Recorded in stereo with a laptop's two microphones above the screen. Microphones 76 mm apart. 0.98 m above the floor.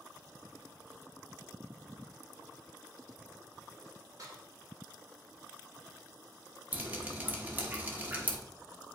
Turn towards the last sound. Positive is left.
turn(degrees=-20)  # may be behind; listen again after turning